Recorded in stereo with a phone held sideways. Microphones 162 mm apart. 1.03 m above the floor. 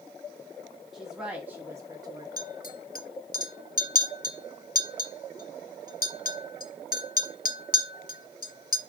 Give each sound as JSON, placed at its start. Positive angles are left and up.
{"t": 0.9, "sound": "a woman speaking", "side_deg": 0, "distance_m": 1.1}
{"t": 2.4, "sound": "a clink", "side_deg": 65, "distance_m": 0.6}